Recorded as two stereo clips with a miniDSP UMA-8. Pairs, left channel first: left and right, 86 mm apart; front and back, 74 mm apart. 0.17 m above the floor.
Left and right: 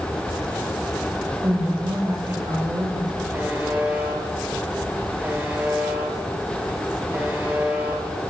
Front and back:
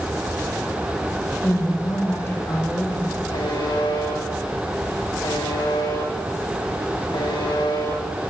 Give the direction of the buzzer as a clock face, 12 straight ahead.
1 o'clock.